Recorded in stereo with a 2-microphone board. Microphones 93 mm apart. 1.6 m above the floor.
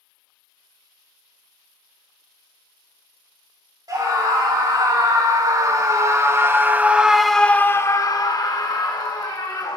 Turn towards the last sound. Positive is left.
turn(degrees=55)  # may be behind; listen again after turning